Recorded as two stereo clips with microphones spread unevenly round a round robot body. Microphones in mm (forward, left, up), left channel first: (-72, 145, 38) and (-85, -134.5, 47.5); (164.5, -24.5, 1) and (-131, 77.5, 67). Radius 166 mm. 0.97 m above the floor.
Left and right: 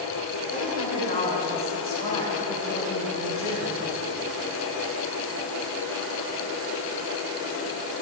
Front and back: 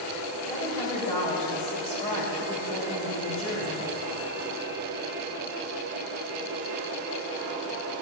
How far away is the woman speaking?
About 4.5 m.